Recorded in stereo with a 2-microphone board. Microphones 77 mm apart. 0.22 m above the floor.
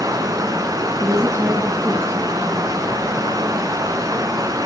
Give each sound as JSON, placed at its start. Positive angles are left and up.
{"t": 0.0, "sound": "running water", "side_deg": -50, "distance_m": 1.7}
{"t": 1.0, "sound": "a woman speaking", "side_deg": -35, "distance_m": 2.0}